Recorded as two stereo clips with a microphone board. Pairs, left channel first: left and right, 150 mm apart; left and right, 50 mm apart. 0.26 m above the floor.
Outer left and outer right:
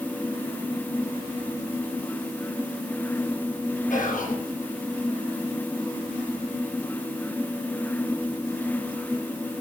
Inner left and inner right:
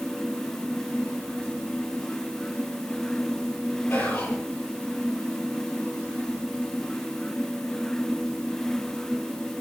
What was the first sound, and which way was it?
Whispering, 60° left (ahead or behind).